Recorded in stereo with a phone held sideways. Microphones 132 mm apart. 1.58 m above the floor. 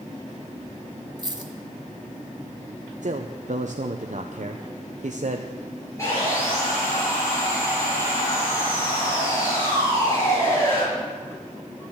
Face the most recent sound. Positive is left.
turn(degrees=25)  # may be behind; listen again after turning